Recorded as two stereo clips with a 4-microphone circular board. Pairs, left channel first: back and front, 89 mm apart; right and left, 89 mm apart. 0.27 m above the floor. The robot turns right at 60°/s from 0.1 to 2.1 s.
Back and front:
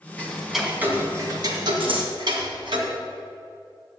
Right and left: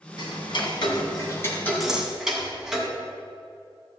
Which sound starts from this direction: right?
Ticking, at 0.2 s.